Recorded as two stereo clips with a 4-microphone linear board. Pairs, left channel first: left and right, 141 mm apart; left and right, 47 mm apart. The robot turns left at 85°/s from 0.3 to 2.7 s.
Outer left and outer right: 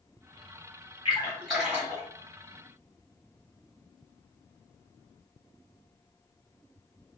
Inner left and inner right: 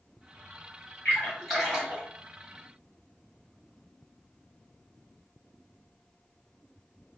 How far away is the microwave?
No microwave in this recording.